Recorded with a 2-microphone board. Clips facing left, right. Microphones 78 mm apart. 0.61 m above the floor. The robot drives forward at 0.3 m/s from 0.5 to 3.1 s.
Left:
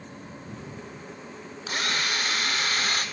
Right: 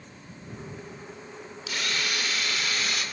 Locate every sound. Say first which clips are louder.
1.7 s a drill: left 2 dB; 40° left (ahead or behind), 2.5 m; by 3.0 s 45° left (ahead or behind), 2 m